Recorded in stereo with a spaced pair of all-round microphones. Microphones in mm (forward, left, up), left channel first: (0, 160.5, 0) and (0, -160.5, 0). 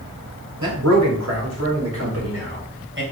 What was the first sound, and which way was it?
A man speaking, 60° right (ahead or behind).